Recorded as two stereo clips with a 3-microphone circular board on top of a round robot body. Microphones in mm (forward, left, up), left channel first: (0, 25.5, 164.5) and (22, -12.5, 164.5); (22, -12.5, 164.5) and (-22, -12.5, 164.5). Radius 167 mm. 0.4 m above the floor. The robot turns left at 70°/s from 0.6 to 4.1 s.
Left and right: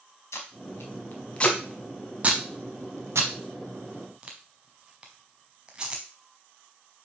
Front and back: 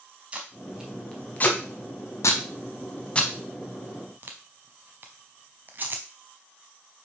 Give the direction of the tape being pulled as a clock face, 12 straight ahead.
8 o'clock.